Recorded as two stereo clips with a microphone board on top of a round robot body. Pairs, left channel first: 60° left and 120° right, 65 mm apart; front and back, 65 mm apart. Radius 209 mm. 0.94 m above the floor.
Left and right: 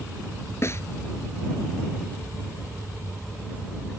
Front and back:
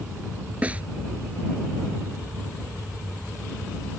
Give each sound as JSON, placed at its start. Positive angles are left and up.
{"t": 0.6, "sound": "a snare drum", "azimuth_deg": 110}